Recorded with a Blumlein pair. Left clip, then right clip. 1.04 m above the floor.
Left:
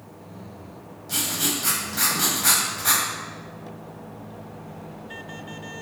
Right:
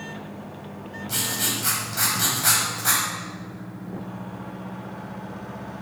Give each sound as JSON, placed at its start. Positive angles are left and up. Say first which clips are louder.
{"t": 1.1, "sound": "writing", "louder": "left 1 dB", "azimuth_deg": -5, "distance_m": 0.8}